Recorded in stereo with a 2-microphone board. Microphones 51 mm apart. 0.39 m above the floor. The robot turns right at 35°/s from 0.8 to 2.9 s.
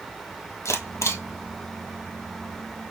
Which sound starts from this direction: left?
A camera shutter, at 0.7 s.